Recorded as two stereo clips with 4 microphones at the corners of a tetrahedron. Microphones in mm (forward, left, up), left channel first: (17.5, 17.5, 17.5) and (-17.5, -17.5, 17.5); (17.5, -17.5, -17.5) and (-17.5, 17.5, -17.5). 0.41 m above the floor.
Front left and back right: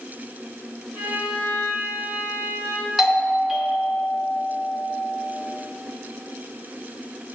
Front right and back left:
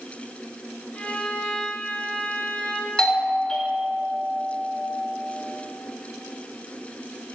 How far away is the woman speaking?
No woman speaking in this recording.